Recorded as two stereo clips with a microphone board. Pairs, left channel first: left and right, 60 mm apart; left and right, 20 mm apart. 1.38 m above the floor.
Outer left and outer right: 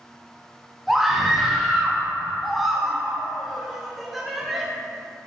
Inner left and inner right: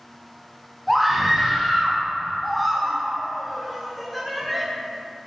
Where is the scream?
Centre (ahead or behind), 1.1 m.